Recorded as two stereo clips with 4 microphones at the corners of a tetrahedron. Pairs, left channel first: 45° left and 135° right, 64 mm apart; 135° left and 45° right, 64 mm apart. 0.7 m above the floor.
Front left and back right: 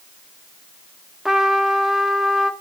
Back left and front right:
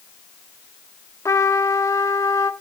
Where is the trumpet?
145° left, 1.2 m.